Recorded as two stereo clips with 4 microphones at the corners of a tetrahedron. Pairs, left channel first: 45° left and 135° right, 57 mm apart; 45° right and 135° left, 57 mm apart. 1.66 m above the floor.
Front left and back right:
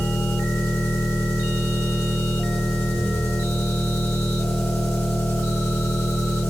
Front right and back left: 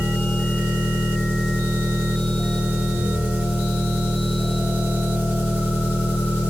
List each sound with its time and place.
0.0 s an engine running: 80° left, 0.8 m